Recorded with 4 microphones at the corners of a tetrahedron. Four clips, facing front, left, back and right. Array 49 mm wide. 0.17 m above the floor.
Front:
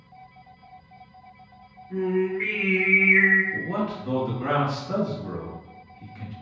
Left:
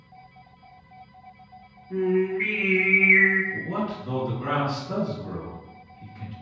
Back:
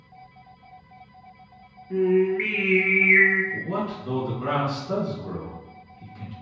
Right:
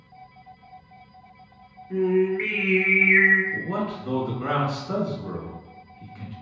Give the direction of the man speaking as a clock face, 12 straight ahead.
3 o'clock.